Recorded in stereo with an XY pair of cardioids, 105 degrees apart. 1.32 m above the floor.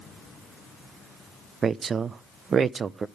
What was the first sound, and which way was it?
A woman speaking, 40° right.